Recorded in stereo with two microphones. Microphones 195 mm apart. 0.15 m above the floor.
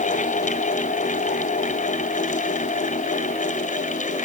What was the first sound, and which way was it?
Only background noise.